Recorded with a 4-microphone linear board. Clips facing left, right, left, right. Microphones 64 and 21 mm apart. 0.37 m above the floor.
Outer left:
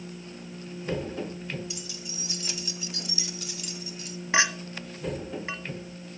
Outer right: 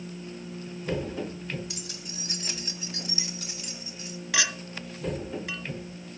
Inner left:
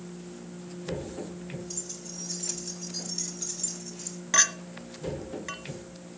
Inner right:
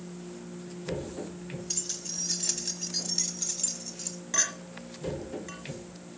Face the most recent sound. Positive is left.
turn(degrees=30)  # may be behind; listen again after turning